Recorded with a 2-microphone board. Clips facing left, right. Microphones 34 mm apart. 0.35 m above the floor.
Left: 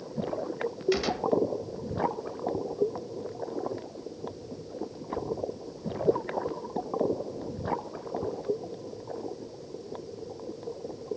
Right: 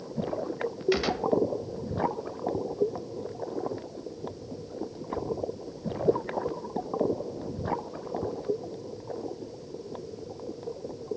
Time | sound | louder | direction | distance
0.9 | a gunshot | right 1 dB | 15° right (ahead or behind) | 1.0 m